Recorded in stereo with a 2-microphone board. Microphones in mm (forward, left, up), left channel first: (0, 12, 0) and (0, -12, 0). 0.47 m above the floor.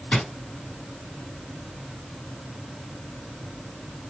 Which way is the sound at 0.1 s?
65° left (ahead or behind).